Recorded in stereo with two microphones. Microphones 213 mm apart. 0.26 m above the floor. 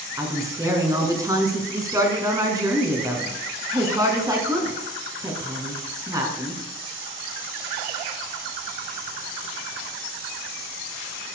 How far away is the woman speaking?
About 2 m.